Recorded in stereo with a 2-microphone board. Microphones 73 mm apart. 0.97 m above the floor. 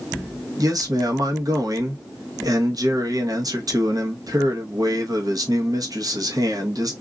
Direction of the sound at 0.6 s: 55° right (ahead or behind).